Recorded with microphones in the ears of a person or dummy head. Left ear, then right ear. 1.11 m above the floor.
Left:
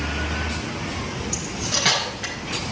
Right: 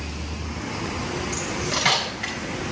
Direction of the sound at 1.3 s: 10° right (ahead or behind).